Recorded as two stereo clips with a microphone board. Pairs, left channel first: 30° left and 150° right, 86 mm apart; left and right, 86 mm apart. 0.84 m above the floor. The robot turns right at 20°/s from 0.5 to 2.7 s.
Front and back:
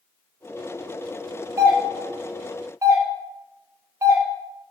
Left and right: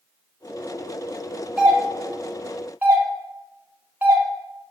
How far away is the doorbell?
About 0.9 m.